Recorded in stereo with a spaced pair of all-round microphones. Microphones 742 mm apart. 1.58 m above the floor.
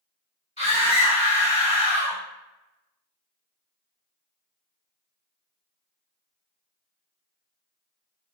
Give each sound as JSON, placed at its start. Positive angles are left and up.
{"t": 0.6, "sound": "a scream", "side_deg": -5, "distance_m": 1.5}